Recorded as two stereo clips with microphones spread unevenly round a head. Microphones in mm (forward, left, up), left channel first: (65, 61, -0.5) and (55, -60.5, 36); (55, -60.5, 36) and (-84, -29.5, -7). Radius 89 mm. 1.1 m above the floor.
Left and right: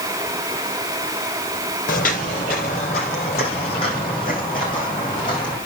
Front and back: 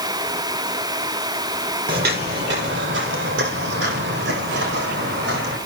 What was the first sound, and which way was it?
Footsteps, 125° left.